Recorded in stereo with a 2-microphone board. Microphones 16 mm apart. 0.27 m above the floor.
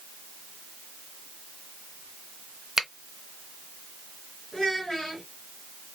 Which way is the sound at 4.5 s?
45° left (ahead or behind).